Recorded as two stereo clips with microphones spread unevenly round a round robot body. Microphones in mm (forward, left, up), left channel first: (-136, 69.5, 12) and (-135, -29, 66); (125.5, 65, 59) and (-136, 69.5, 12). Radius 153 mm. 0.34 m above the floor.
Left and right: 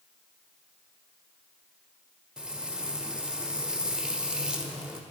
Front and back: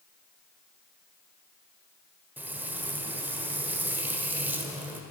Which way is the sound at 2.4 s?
125° left.